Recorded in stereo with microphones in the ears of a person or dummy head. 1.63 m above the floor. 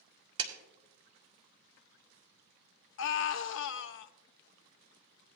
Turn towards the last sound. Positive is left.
turn(degrees=60)  # may be behind; listen again after turning